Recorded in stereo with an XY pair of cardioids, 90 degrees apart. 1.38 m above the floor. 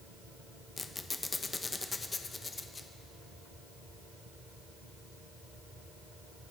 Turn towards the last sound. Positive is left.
turn(degrees=35)